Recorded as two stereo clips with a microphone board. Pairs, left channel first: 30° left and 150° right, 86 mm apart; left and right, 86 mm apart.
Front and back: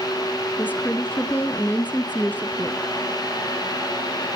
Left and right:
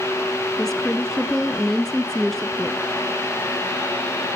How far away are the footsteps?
No footsteps in this recording.